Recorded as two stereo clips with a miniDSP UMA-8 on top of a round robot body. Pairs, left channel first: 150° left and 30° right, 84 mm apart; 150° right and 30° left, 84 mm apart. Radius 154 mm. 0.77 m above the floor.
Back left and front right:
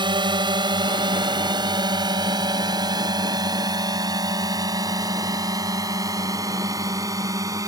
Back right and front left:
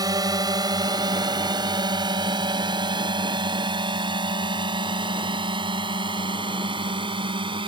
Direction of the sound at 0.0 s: 10° right.